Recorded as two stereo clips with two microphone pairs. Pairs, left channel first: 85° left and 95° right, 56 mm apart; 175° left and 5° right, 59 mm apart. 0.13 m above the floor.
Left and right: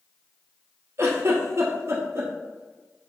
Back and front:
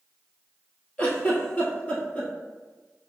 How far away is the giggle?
About 1.1 m.